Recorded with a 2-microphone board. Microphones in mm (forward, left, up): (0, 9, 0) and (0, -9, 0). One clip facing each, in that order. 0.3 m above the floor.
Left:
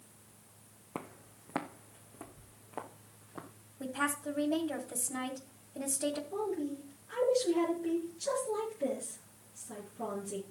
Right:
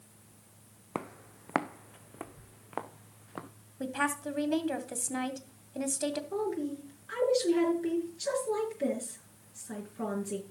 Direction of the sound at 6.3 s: 65° right (ahead or behind).